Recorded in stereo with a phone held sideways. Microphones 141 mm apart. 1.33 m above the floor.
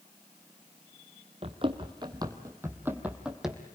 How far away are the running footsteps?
About 1.8 m.